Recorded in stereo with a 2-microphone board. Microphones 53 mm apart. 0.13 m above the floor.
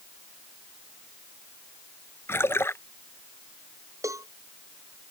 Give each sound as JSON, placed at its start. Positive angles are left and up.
{"t": 2.3, "sound": "a splash", "side_deg": 50}
{"t": 4.0, "sound": "a cowbell", "side_deg": -80}